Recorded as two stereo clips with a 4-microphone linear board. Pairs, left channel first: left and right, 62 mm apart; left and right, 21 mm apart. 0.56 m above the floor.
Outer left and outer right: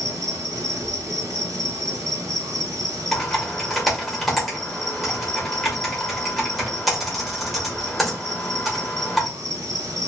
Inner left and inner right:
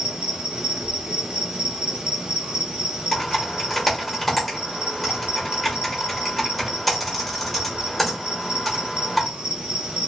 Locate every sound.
0.0 s an insect: 65° right (ahead or behind), 1.4 m
3.1 s typing on a keyboard: centre (ahead or behind), 1.2 m